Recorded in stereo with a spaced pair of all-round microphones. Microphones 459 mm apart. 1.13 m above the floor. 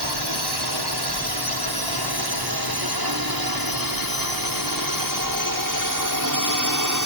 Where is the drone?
60° right (ahead or behind); by 7.1 s 40° right (ahead or behind).